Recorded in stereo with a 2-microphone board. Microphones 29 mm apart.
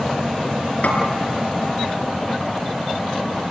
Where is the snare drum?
65° left (ahead or behind), 4.5 m.